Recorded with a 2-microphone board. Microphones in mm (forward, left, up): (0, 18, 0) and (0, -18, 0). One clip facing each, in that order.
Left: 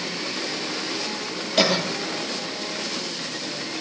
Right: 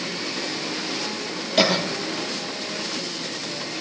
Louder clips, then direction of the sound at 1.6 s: Right 1 dB; 5° right (ahead or behind).